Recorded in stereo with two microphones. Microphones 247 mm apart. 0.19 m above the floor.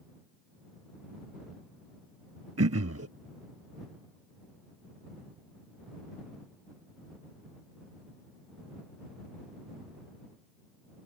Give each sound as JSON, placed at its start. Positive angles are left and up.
{"t": 2.6, "sound": "throat clearing", "side_deg": -80}